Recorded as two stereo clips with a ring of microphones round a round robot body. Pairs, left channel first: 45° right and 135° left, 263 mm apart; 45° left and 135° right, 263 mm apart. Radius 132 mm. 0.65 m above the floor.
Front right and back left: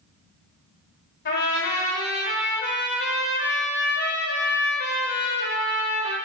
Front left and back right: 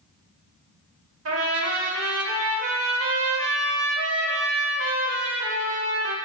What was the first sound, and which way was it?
A trumpet, 95° right.